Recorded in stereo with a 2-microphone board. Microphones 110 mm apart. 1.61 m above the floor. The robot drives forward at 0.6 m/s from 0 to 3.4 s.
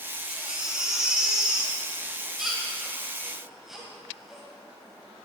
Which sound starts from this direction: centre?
A baby crying, at 0.3 s.